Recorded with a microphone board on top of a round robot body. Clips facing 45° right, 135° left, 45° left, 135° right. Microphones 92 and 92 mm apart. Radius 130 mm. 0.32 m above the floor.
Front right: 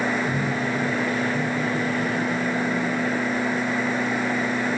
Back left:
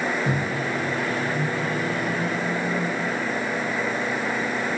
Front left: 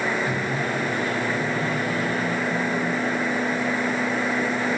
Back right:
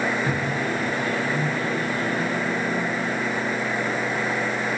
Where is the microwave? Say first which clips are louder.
Front right 1 dB, even; 165° left, 5 m.